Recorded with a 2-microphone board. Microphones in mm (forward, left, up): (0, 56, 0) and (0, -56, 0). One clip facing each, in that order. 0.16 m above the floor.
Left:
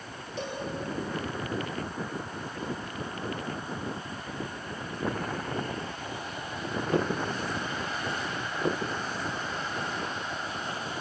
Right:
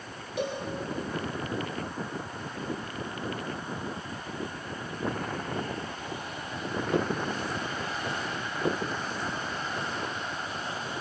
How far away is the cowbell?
About 5 m.